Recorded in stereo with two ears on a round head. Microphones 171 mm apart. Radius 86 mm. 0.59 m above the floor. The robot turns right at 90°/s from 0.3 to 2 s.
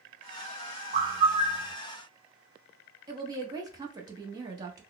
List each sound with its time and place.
0.9 s a bird: 95° right, 0.8 m; by 1.7 s 20° right, 0.8 m
3.1 s a woman speaking: 20° right (ahead or behind), 0.8 m